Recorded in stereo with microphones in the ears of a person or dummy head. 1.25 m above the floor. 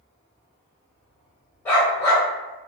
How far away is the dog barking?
About 1.5 m.